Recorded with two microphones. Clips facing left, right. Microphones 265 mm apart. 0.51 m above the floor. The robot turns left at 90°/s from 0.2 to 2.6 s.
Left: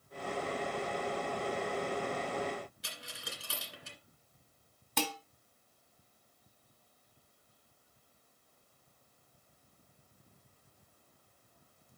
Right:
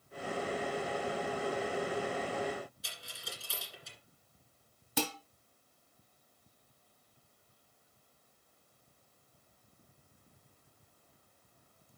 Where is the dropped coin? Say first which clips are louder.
Left 2 dB; 75° left (ahead or behind), 1.8 m.